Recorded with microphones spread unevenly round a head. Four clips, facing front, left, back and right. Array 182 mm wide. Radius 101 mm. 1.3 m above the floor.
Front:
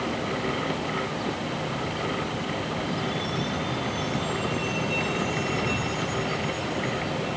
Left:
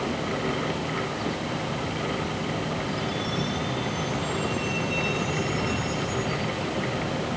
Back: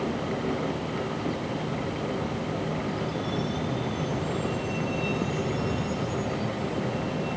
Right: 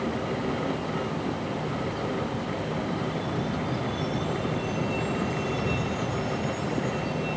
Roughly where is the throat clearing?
No throat clearing in this recording.